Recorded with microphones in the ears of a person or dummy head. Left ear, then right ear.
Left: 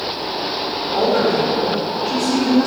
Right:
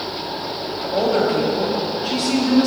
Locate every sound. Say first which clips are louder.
0.8 s a woman speaking: left 1 dB; 50° right (ahead or behind), 1.6 m